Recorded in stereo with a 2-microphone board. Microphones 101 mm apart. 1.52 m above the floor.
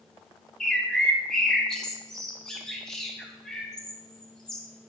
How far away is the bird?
About 0.5 m.